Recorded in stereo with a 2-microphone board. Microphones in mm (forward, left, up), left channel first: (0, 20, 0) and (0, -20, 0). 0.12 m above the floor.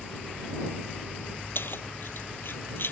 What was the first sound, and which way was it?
Keys jangling, 65° left (ahead or behind).